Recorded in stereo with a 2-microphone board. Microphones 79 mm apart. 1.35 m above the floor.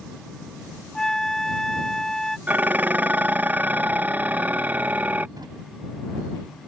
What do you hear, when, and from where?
0.9 s a flute: 5° left (ahead or behind)
2.5 s dishes clattering: 20° right (ahead or behind)
5.4 s a drawer: 65° right (ahead or behind)